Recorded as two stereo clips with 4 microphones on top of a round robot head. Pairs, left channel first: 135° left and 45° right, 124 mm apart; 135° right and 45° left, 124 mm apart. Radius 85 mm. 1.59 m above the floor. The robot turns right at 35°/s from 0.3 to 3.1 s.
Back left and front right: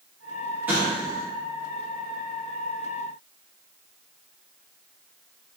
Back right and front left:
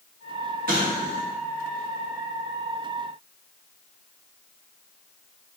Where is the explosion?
30° left, 0.6 m; by 1.2 s 50° left, 0.6 m.